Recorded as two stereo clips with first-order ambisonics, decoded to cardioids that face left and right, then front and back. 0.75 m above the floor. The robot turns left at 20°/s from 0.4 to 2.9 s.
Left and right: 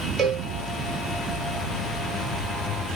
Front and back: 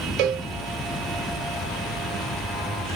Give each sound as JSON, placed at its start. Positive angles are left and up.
{"t": 0.2, "sound": "a cowbell", "azimuth_deg": -150, "distance_m": 0.7}